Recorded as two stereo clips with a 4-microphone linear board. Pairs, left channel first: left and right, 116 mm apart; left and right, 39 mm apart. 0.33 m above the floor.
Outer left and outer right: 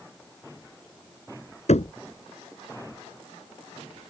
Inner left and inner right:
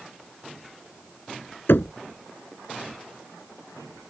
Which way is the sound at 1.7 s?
75° left (ahead or behind).